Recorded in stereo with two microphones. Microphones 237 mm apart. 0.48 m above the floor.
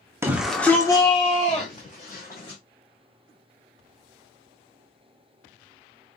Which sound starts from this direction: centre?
A shout, at 0.2 s.